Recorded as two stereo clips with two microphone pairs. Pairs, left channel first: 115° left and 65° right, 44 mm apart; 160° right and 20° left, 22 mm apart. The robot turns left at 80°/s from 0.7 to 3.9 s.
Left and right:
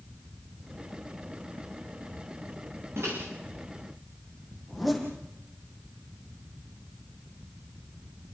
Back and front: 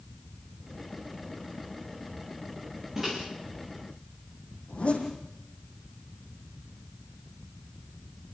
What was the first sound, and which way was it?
A microwave, 50° right.